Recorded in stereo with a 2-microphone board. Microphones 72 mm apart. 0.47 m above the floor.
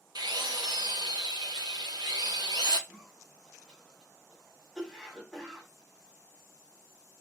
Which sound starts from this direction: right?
A drill, at 0.1 s.